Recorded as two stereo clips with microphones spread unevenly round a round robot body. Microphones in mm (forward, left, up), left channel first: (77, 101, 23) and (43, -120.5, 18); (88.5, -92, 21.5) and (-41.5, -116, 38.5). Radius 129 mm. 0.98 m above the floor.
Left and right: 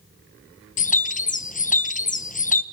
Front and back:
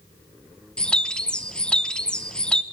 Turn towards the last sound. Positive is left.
turn(degrees=75)